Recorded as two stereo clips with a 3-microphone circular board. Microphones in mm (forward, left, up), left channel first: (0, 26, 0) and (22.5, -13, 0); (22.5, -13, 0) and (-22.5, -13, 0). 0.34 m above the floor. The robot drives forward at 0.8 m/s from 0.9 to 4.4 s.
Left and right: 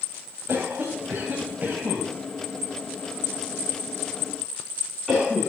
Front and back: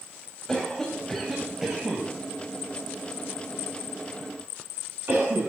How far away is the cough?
About 1.8 m.